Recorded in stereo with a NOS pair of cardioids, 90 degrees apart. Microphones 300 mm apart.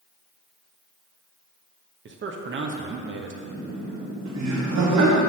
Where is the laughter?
65° right, 2 m.